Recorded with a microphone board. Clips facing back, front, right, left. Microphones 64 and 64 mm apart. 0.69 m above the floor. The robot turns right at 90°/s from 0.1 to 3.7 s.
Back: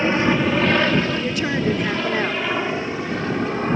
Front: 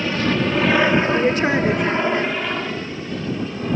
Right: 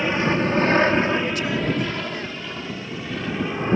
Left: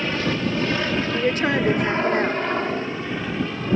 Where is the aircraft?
150° right; by 3.8 s 145° right.